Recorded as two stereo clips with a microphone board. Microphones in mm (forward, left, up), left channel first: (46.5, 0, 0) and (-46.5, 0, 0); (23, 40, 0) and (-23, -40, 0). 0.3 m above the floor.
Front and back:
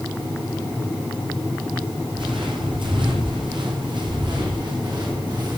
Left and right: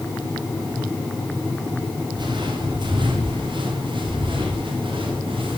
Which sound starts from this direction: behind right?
Footsteps, at 2.1 s.